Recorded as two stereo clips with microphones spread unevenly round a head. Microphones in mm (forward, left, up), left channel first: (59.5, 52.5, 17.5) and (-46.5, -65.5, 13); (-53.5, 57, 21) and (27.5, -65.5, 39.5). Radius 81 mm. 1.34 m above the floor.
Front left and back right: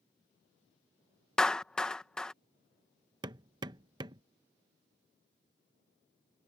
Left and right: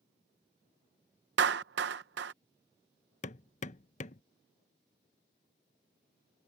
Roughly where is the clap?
Ahead right.